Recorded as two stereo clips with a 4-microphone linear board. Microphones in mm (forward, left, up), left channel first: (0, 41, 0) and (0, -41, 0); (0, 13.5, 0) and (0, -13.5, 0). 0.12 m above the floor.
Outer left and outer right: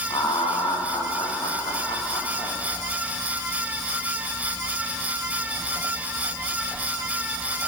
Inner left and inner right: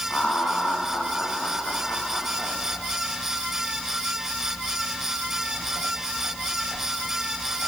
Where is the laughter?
70° left (ahead or behind), 5.5 m.